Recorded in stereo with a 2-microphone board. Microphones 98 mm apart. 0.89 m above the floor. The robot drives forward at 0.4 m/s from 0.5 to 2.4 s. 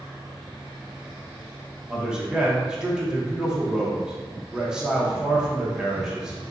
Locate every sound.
1.9 s a man speaking: 10° right (ahead or behind), 0.6 m